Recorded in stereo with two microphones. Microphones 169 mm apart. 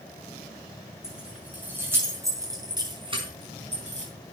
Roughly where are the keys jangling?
Centre.